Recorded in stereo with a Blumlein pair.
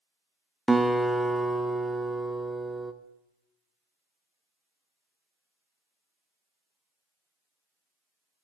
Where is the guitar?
5° right, 0.7 m.